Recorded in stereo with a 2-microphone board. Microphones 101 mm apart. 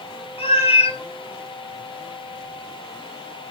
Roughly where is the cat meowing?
Left.